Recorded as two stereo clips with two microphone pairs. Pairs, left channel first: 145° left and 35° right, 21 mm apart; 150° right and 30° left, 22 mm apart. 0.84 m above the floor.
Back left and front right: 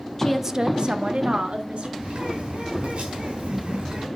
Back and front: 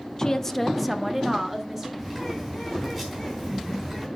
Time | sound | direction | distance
0.2 | a woman speaking | 165° right | 0.6 m
2.0 | a bird | 60° right | 4 m